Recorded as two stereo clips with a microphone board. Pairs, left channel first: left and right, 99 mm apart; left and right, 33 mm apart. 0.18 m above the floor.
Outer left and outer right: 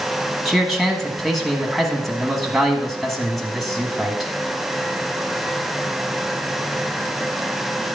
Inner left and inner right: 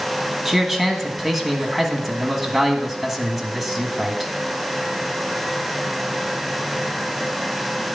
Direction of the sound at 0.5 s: Centre (ahead or behind).